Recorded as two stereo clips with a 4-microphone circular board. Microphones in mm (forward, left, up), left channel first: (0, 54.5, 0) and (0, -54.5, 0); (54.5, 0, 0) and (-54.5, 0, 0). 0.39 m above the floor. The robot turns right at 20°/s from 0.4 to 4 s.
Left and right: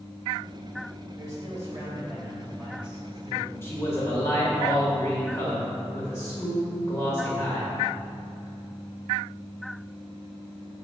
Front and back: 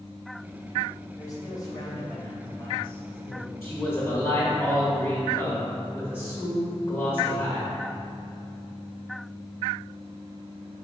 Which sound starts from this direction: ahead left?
A man speaking, at 3.6 s.